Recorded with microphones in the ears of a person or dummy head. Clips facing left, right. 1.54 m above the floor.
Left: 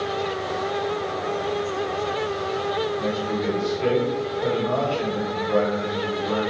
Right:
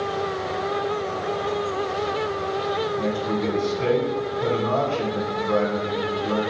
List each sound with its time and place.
3.0 s a man speaking: 60° right (ahead or behind), 1.3 m